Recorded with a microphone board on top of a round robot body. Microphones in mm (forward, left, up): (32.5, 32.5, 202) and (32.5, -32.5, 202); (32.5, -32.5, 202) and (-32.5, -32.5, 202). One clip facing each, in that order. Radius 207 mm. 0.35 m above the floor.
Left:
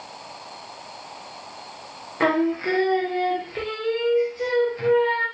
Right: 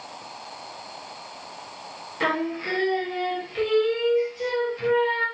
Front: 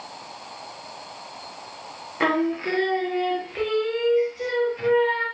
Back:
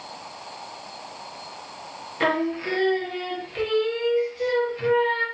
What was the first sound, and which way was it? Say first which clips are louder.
Singing: left 5 dB, front 1 dB; 65° left.